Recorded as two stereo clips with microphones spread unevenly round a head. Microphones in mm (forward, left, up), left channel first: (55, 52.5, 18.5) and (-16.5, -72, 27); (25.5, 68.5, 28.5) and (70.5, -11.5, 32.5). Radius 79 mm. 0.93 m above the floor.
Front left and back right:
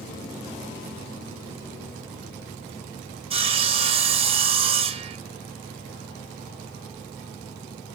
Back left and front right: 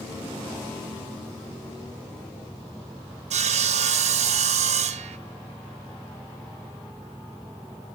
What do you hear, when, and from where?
3.3 s sawing: 65° right, 0.8 m